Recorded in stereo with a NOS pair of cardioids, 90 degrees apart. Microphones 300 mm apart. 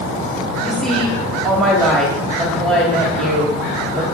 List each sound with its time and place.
0.6 s a woman speaking: straight ahead, 2 m